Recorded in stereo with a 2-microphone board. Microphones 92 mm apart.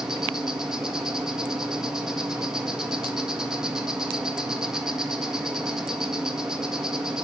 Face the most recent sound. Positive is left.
turn(degrees=-5)  # may be behind; listen again after turning